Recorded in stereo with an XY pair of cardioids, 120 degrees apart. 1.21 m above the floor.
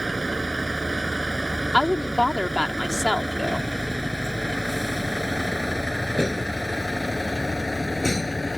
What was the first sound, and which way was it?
A vehicle, 10° right.